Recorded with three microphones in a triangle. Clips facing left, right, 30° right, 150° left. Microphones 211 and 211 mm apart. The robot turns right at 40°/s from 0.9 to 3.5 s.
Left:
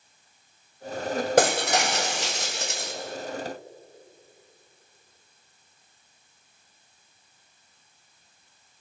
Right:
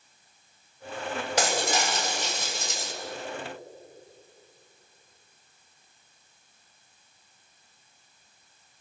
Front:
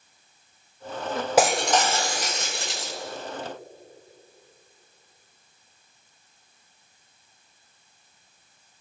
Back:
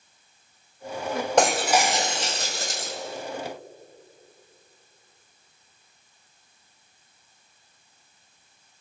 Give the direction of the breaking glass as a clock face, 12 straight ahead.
10 o'clock.